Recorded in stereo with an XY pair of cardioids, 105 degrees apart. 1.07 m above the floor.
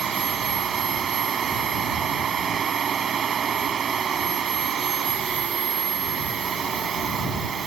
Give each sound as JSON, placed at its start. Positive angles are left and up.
{"t": 0.0, "sound": "a machine running", "azimuth_deg": -50}